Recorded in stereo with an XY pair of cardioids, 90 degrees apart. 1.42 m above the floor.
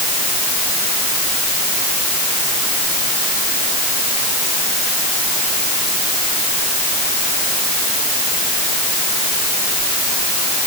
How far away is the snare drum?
No snare drum in this recording.